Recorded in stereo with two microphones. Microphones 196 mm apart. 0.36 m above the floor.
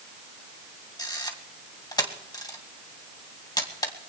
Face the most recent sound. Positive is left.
turn(degrees=20)  # may be behind; listen again after turning